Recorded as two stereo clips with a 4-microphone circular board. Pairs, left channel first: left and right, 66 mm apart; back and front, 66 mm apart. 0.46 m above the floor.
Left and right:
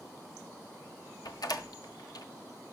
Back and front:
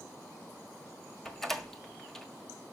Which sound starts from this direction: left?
A door slam, at 1.2 s.